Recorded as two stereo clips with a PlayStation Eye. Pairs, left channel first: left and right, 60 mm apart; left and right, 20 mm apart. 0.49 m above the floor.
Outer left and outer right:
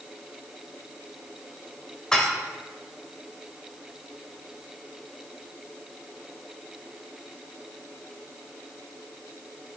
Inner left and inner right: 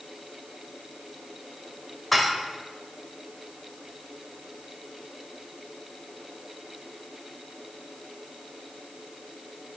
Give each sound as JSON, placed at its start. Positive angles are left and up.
{"t": 2.1, "sound": "dishes clattering", "side_deg": 10, "distance_m": 1.1}